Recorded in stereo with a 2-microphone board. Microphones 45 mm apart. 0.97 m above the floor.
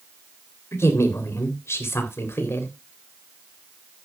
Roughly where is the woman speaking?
Left.